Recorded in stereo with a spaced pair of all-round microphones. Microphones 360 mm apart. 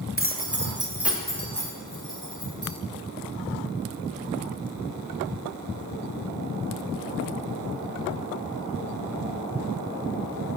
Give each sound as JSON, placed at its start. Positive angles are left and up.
{"t": 0.2, "sound": "keys jangling", "side_deg": -25, "distance_m": 0.7}